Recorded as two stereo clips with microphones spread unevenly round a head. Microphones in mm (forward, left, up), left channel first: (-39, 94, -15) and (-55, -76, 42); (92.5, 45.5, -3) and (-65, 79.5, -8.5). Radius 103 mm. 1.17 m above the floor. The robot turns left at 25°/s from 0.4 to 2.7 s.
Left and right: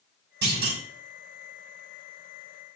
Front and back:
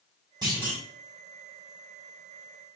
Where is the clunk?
120° right, 5 m; by 0.8 s 130° right, 5 m.